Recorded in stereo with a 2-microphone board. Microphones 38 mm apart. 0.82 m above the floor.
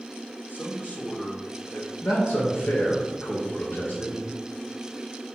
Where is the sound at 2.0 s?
65° left (ahead or behind), 2 m.